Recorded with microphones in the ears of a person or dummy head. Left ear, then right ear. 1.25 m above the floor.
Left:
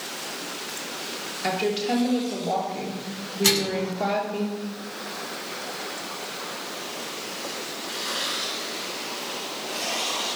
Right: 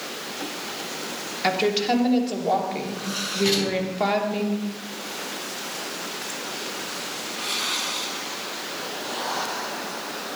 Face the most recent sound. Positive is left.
turn(degrees=55)  # may be behind; listen again after turning